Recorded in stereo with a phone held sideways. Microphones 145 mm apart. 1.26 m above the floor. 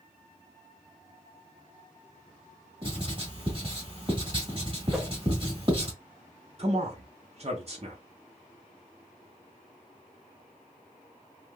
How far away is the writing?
About 1.3 m.